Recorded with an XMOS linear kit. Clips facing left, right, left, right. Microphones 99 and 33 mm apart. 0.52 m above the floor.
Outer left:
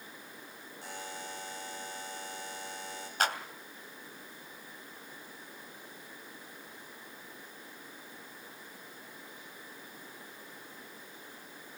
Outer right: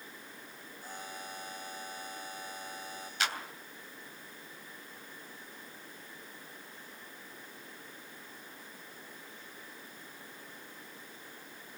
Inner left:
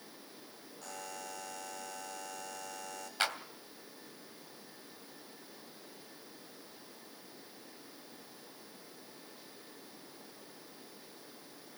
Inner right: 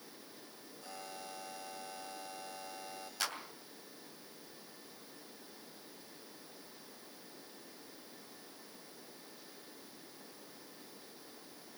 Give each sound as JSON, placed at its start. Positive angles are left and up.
{"t": 0.8, "sound": "a buzzer", "side_deg": 85, "distance_m": 6.5}
{"t": 3.2, "sound": "a clap", "side_deg": 45, "distance_m": 2.5}